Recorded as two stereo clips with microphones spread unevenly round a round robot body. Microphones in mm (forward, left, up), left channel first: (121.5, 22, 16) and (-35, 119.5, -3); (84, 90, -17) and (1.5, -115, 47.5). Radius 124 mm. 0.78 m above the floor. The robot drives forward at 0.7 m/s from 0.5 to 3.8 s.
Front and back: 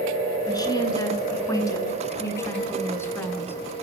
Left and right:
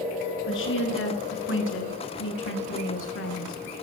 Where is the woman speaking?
35° left, 9.5 m; by 3.5 s 45° left, 8 m.